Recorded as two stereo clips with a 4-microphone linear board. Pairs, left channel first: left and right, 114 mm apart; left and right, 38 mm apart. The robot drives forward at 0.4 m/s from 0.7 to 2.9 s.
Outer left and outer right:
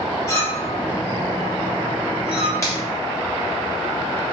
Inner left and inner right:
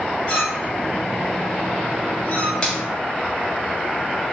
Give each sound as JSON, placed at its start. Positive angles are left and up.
{"t": 0.3, "sound": "a clink", "side_deg": 30, "distance_m": 1.4}
{"t": 2.6, "sound": "a finger snap", "side_deg": 25, "distance_m": 0.9}